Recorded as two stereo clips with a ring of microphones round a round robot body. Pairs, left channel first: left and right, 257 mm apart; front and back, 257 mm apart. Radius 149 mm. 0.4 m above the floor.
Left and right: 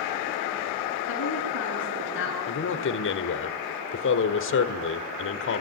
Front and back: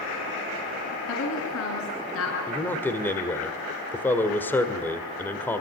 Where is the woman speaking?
45° left, 6.5 m; by 2.4 s 40° left, 7 m.